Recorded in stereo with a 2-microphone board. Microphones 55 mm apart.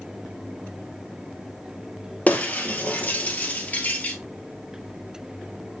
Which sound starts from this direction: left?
Breaking glass, at 2.3 s.